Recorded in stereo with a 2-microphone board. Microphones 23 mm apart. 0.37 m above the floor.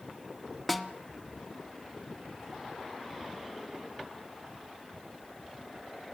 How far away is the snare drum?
About 1.3 m.